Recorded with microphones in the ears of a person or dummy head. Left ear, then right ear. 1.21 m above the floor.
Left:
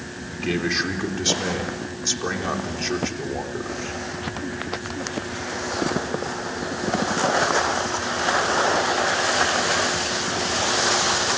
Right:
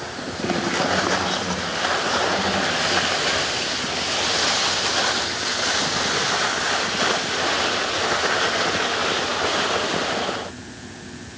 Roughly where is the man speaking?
Left.